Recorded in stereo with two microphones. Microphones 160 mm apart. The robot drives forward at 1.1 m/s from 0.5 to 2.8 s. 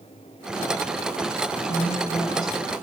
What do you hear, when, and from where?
1.7 s a woman speaking: 35° left (ahead or behind), 1.1 m; by 2.5 s 25° left (ahead or behind), 1.4 m